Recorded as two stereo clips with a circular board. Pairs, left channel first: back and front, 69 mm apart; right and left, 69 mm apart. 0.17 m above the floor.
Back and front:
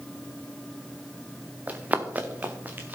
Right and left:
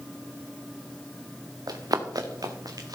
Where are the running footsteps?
70° left, 1.5 m; by 3.0 s 65° left, 2.5 m.